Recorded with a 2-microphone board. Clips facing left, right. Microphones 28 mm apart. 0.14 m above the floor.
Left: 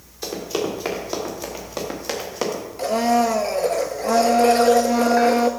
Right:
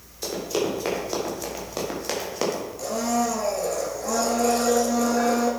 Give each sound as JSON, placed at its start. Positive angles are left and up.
{"t": 0.2, "sound": "running footsteps", "side_deg": 10, "distance_m": 4.5}
{"t": 2.8, "sound": "a blender", "side_deg": 45, "distance_m": 1.1}